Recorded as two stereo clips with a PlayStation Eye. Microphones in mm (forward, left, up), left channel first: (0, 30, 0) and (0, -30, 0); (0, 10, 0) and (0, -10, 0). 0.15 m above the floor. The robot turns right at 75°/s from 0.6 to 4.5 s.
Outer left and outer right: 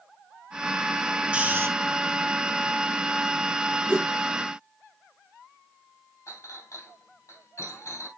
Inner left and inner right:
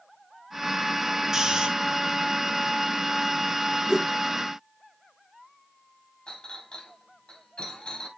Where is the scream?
I don't hear a scream.